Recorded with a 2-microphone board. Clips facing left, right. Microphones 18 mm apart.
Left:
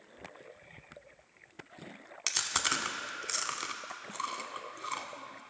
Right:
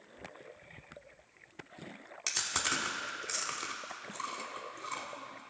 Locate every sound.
2.3 s chewing: 30° left (ahead or behind), 0.7 m